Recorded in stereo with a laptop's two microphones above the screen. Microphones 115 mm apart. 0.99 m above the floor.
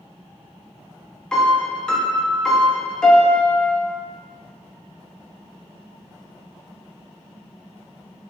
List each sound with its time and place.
1.3 s a piano: 5° left (ahead or behind), 0.5 m